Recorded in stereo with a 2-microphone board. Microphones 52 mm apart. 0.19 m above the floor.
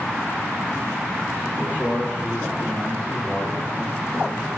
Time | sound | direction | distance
1.6 | a man speaking | 30° right (ahead or behind) | 1.5 m